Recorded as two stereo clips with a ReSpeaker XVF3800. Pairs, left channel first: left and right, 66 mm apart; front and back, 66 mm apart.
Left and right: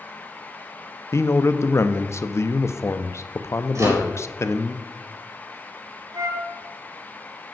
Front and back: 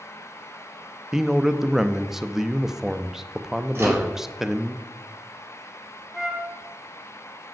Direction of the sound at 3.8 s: 125° right.